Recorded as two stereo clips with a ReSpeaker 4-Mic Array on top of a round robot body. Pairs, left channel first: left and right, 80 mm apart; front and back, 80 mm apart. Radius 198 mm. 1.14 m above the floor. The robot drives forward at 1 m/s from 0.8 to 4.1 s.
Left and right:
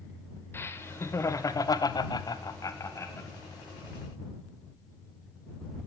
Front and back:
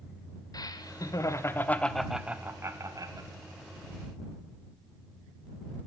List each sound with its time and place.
0.5 s laughter: 35° left, 1.6 m; by 3.3 s 145° left, 1.6 m